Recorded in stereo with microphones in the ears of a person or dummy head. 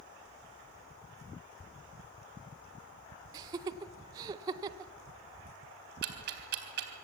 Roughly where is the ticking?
Right.